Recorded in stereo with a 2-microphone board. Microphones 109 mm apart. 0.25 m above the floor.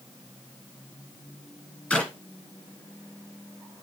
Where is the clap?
10° left (ahead or behind), 2.5 m.